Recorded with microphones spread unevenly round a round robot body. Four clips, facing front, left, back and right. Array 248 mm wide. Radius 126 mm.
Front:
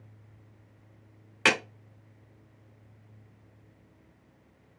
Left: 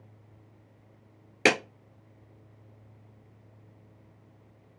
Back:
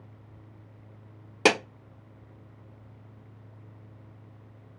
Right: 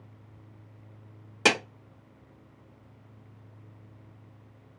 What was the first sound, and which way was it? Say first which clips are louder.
A clap: left 1 dB, back 4 dB; 160° left.